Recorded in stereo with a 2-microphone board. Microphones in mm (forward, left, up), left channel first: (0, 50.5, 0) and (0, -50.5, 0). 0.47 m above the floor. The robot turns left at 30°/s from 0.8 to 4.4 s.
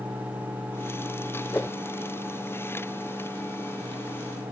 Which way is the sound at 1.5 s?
20° left (ahead or behind).